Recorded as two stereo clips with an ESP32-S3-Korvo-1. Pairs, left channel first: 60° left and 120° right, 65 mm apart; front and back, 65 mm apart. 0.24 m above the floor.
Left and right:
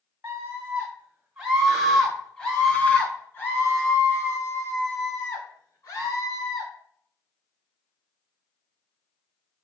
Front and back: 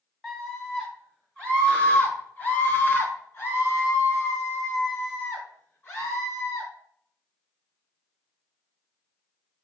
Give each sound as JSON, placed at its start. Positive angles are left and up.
{"t": 0.2, "sound": "a scream", "azimuth_deg": -90, "distance_m": 1.9}